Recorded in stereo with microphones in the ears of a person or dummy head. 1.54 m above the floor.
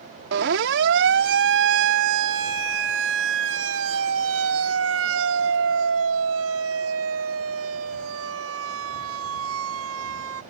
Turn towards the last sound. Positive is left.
turn(degrees=-85)